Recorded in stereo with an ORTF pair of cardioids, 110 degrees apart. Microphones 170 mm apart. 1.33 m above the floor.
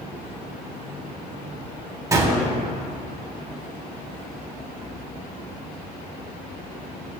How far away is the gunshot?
About 3.5 m.